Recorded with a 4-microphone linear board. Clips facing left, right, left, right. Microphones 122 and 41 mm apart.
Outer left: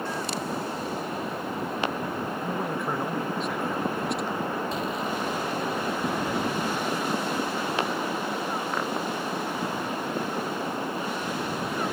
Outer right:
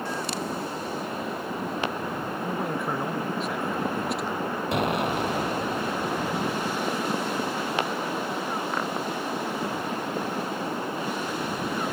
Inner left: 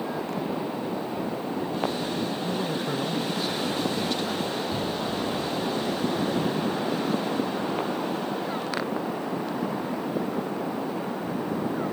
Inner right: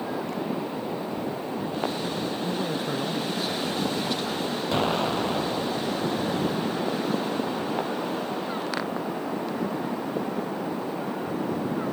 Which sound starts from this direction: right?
An explosion, at 4.7 s.